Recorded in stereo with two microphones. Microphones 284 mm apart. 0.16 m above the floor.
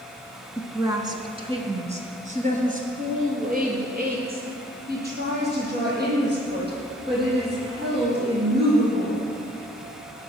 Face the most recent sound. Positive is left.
turn(degrees=-35)  # may be behind; listen again after turning